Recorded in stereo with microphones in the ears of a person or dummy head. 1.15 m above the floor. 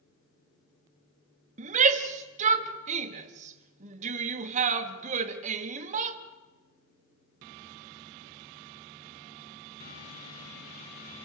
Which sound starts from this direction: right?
A shout, at 1.6 s.